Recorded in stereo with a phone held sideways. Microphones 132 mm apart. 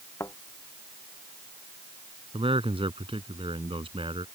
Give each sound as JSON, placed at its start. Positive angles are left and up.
{"t": 0.2, "sound": "a thud", "side_deg": 20}
{"t": 2.3, "sound": "a man speaking", "side_deg": -45}